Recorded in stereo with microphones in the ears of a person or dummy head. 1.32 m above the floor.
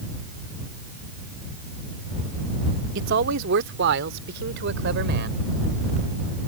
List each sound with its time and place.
3.0 s a man speaking: 70° right (ahead or behind); by 5.4 s 60° right (ahead or behind)